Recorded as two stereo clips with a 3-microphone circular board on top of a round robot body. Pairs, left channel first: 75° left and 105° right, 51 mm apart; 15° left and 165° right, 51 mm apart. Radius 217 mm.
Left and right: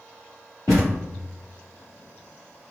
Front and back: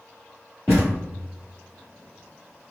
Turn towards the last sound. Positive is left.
turn(degrees=60)